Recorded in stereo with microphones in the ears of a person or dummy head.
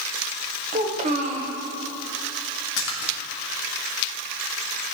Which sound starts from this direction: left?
A splash, at 2.8 s.